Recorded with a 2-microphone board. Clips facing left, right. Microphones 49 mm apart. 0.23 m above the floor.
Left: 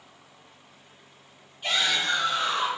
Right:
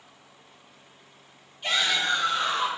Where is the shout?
Centre (ahead or behind), 1.5 m.